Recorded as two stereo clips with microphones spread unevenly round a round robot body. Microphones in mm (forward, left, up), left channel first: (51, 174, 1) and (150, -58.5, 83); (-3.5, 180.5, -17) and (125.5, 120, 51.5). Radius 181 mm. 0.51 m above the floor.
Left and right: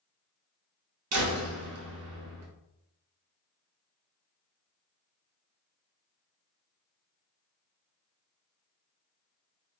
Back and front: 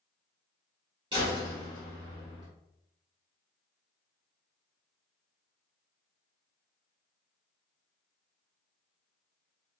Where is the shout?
No shout in this recording.